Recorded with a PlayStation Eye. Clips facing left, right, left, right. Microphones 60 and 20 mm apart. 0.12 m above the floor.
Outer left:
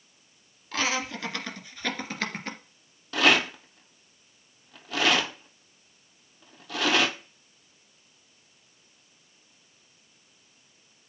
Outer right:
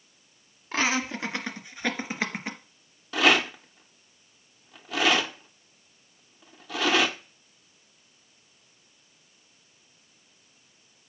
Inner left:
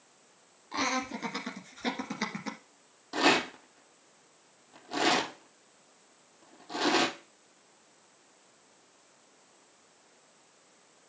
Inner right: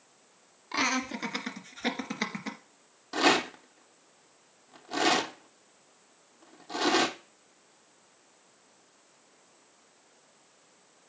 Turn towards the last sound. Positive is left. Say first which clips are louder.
# even, inner right 1 dB
turn(degrees=-5)  # may be behind; listen again after turning